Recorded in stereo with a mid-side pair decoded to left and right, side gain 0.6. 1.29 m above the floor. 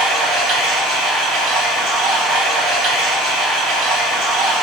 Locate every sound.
0.0 s running water: 70° right, 1.7 m